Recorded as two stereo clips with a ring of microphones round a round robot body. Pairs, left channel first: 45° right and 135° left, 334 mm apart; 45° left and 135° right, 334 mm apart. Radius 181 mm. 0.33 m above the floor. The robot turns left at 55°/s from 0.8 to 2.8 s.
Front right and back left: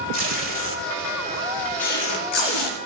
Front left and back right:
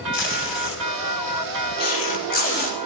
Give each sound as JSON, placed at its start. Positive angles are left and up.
{"t": 0.1, "sound": "tape being pulled", "azimuth_deg": 80, "distance_m": 5.0}